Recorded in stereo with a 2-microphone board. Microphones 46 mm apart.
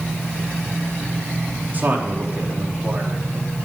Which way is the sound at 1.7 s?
40° right (ahead or behind).